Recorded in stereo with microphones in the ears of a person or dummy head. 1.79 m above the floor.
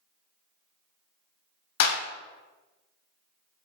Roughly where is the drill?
I don't hear a drill.